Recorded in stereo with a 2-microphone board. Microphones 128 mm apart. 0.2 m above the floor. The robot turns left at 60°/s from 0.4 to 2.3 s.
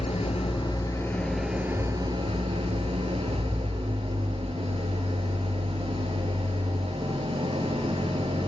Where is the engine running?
60° left, 2.0 m; by 8.5 s 55° right, 2.0 m.